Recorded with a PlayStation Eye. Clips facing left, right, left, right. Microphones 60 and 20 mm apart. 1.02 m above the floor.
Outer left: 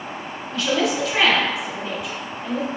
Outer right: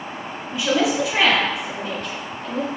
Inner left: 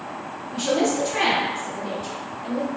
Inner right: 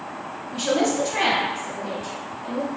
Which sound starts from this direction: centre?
A woman speaking, at 0.5 s.